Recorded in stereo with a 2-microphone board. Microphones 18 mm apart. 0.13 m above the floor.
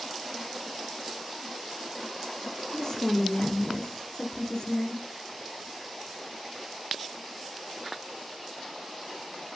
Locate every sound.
2.7 s a woman speaking: 35° left (ahead or behind), 1.8 m